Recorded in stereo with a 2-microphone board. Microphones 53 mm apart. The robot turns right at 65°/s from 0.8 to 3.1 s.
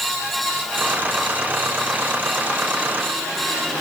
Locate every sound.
Only background noise.